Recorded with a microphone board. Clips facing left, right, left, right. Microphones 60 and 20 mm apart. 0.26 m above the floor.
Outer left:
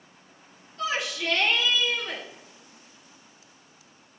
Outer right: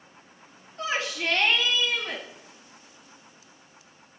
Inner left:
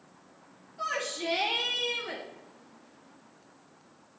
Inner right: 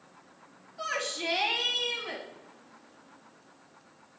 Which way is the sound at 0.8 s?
30° right (ahead or behind).